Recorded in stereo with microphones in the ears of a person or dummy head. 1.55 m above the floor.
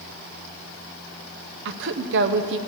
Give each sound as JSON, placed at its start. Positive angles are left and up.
{"t": 1.6, "sound": "a woman speaking", "side_deg": -65, "distance_m": 0.7}